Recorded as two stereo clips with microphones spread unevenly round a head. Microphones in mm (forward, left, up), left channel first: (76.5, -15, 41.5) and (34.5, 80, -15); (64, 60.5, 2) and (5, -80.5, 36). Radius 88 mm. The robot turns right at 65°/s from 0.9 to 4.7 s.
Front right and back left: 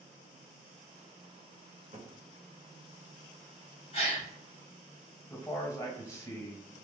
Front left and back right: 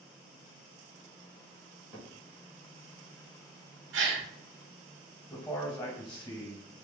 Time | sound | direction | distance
1.9 | a cupboard door | 170° left | 1.8 m
3.9 | a gasp | 130° right | 1.1 m
5.3 | a man speaking | straight ahead | 1.8 m